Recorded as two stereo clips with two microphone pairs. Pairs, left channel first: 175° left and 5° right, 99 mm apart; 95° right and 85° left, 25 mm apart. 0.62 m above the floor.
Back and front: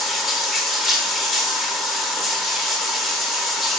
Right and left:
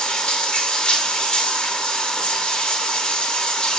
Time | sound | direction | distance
0.0 | running water | 90° right | 0.9 m